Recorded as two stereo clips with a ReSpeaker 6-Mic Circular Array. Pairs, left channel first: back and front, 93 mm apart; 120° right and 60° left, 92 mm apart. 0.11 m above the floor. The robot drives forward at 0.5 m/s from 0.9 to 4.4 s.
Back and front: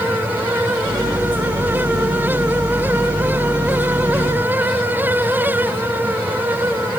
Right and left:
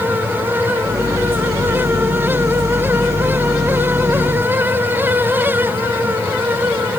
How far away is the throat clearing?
I don't hear throat clearing.